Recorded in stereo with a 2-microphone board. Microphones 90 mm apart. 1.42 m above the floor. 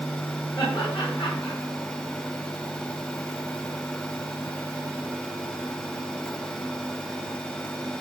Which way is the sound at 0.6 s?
60° left (ahead or behind).